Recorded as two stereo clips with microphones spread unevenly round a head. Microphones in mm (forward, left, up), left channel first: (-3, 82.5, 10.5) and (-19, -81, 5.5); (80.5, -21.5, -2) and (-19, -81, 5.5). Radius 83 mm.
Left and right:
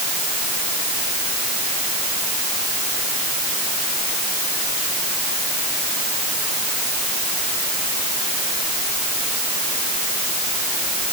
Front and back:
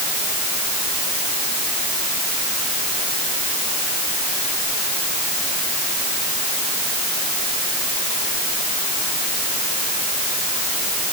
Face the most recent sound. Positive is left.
No sound to turn to.